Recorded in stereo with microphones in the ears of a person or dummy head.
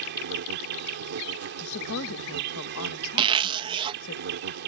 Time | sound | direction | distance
0.0 | an insect | 60° right (ahead or behind) | ?
1.6 | a woman speaking | 70° left (ahead or behind) | ?
3.2 | a zipper | 30° right (ahead or behind) | ?